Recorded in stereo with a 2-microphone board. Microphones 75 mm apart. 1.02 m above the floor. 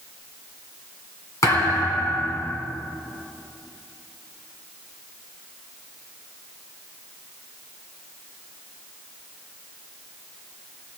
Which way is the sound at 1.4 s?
45° left (ahead or behind).